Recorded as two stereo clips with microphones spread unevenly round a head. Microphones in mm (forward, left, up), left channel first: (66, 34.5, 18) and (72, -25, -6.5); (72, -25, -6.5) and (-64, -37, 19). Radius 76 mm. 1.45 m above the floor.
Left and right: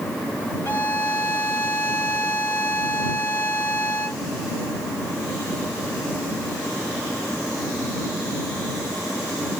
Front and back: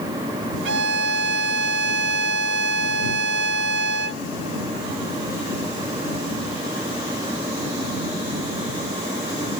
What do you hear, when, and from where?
0.7 s a violin: 175° left